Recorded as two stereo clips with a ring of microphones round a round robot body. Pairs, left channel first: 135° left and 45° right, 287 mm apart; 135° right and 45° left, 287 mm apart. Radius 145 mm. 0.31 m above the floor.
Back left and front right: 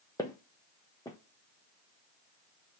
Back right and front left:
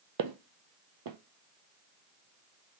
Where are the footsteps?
55° left, 0.6 m.